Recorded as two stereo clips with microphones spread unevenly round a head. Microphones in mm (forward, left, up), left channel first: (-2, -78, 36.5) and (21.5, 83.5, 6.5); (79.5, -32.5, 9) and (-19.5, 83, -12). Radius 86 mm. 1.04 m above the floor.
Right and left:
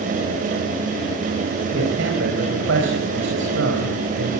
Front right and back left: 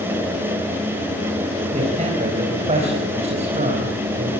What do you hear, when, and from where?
1.7 s a man speaking: 85° left, 4.5 m